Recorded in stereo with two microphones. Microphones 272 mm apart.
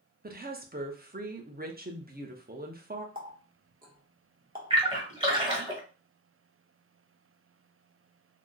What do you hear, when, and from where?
0.2 s a woman speaking: 35° right (ahead or behind), 0.8 m
3.1 s a running tap: 30° right (ahead or behind), 1.0 m
4.7 s a splash: 20° right (ahead or behind), 1.3 m